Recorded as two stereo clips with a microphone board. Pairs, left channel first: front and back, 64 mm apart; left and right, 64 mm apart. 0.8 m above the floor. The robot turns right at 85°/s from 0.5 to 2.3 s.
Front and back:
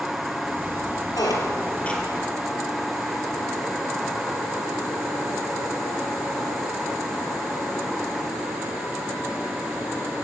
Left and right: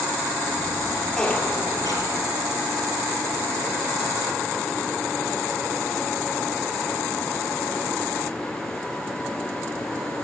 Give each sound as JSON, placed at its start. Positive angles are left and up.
{"t": 1.1, "sound": "a squeak", "azimuth_deg": 10, "distance_m": 4.0}